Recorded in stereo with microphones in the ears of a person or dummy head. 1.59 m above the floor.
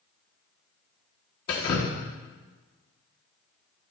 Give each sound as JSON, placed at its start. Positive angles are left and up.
{"t": 1.5, "sound": "dripping", "side_deg": 25, "distance_m": 1.0}